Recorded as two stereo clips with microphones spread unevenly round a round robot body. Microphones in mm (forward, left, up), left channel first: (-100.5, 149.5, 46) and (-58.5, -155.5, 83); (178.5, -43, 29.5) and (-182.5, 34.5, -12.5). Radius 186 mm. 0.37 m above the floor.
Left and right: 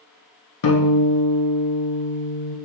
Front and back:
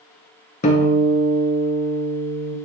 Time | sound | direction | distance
0.6 | a guitar | 60° left | 1.3 m